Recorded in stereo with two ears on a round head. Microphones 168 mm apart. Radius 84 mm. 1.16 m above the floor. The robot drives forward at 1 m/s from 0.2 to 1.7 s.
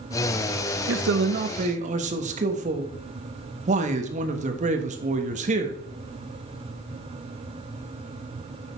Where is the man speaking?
75° right (ahead or behind), 0.8 m; by 5.8 s 35° right (ahead or behind), 1.3 m.